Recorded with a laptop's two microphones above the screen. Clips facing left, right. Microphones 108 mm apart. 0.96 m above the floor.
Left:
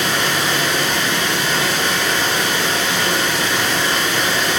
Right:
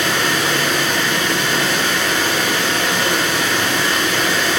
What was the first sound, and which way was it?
Running water, 65° right (ahead or behind).